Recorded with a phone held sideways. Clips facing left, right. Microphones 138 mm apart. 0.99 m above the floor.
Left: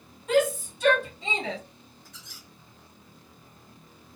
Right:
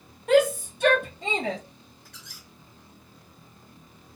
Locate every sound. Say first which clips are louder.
0.3 s a shout: right 3 dB; 70° right (ahead or behind), 1.8 m; by 1.6 s 40° right (ahead or behind), 0.9 m
2.0 s a squeak: right 1 dB; 65° right (ahead or behind), 2.0 m